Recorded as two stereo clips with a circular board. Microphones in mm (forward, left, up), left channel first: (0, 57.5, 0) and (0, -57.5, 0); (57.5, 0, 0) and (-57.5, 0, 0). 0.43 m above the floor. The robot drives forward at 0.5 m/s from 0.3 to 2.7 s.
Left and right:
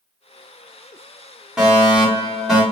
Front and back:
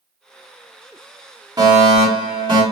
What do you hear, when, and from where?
1.6 s a fire alarm: 170° right, 2 m